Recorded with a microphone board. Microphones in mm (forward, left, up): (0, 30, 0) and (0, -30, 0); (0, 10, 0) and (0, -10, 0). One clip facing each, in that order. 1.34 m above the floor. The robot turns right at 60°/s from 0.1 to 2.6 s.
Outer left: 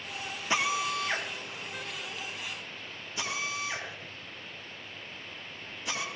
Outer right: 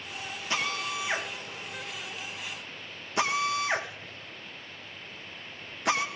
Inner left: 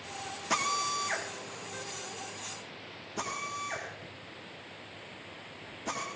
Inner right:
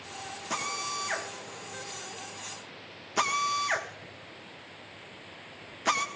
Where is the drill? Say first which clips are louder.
Outer left 3 dB, inner left 3 dB; 20° left (ahead or behind), 1.8 m; by 6.0 s 70° right (ahead or behind), 1.8 m.